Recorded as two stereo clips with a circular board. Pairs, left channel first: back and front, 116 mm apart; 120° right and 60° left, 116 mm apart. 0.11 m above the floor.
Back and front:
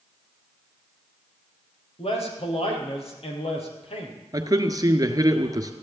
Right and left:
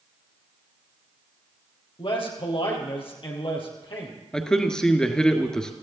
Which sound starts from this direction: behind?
A man speaking, at 2.0 s.